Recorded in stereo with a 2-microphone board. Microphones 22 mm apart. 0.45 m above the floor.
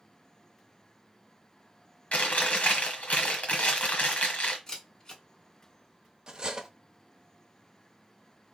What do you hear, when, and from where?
2.1 s chewing: 80° left, 1.2 m
4.7 s a camera shutter: 30° left (ahead or behind), 1.5 m
6.3 s cutlery clinking: 40° right (ahead or behind), 0.7 m